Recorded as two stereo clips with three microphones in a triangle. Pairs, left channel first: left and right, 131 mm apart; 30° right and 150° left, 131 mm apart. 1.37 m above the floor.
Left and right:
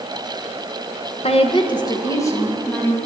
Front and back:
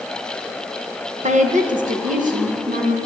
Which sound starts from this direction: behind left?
A woman speaking, at 1.2 s.